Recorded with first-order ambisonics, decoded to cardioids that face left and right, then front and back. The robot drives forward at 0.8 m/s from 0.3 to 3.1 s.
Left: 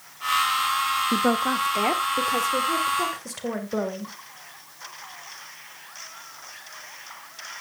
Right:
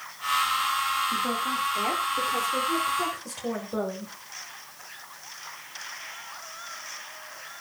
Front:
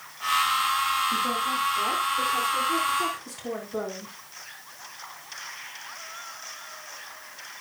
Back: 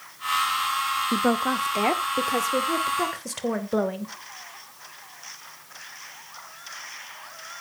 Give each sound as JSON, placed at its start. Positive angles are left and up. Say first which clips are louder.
{"t": 1.1, "sound": "a woman speaking", "louder": "left 4 dB, back 2 dB", "azimuth_deg": 135, "distance_m": 0.8}